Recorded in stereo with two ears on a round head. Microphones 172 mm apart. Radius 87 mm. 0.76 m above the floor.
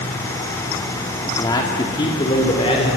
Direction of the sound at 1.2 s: 20° left (ahead or behind).